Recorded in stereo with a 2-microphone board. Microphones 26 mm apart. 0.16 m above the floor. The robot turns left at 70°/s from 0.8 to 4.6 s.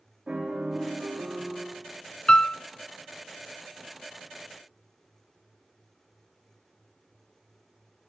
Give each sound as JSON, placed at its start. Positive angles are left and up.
{"t": 0.3, "sound": "a piano", "azimuth_deg": -40, "distance_m": 10.0}
{"t": 2.3, "sound": "a piano", "side_deg": 40, "distance_m": 0.5}